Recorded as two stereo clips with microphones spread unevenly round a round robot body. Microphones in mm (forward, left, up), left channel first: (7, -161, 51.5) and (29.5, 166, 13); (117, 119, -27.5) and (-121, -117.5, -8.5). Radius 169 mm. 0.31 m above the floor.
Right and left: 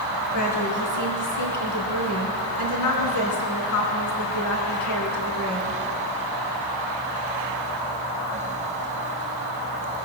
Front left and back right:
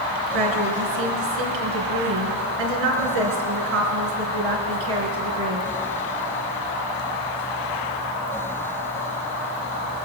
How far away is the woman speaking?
About 3.5 m.